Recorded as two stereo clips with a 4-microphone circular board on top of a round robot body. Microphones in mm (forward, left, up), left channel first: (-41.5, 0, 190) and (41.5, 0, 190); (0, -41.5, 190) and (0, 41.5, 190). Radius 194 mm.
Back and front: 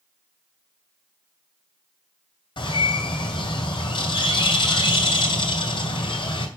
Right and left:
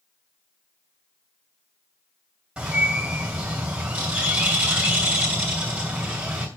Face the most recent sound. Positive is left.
turn(degrees=170)